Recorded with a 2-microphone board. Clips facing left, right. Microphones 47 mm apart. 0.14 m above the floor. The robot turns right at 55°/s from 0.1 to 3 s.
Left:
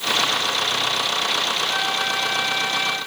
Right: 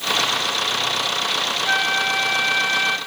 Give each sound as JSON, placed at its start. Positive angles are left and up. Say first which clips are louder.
{"t": 1.7, "sound": "a flute", "louder": "right 3 dB", "azimuth_deg": -110, "distance_m": 2.0}